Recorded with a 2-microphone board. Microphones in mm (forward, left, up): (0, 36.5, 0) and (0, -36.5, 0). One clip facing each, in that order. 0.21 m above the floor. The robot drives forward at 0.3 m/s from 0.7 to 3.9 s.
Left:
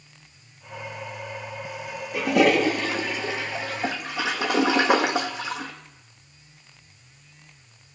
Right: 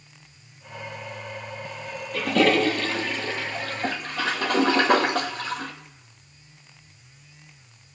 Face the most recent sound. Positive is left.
turn(degrees=10)  # may be behind; listen again after turning